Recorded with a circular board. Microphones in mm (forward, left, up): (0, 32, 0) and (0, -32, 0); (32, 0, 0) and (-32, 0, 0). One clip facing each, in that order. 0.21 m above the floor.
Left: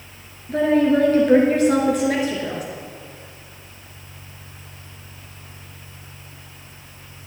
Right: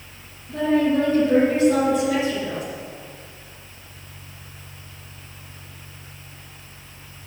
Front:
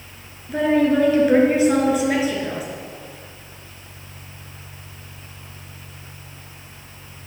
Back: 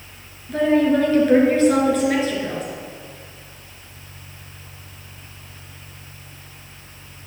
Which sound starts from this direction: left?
A woman speaking, at 0.5 s.